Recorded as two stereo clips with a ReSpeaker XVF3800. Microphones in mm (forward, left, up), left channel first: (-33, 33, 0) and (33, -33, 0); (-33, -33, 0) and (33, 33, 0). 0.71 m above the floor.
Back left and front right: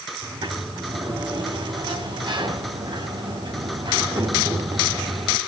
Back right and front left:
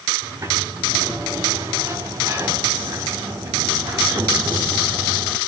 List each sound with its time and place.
0.2 s a sliding door: 10° right, 3.5 m